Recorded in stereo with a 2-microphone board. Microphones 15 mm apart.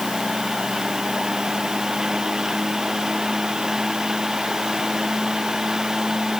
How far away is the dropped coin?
No dropped coin in this recording.